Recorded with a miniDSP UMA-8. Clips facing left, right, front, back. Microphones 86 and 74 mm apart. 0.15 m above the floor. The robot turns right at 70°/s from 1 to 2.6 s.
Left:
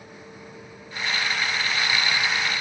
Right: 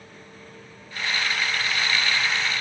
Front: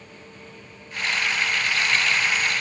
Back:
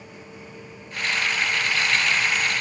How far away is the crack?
No crack in this recording.